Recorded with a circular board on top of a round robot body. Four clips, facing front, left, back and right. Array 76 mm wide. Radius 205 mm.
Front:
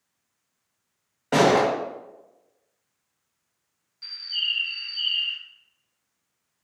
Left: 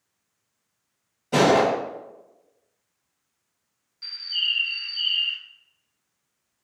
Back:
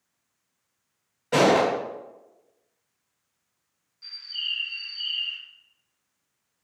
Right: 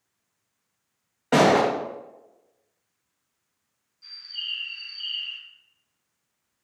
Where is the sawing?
No sawing in this recording.